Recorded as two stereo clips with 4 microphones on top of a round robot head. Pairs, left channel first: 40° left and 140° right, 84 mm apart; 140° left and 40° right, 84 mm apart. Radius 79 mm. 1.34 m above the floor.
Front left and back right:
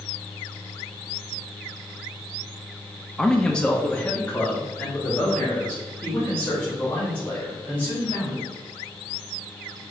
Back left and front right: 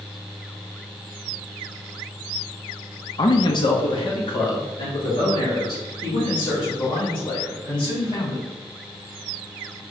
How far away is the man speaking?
About 0.7 m.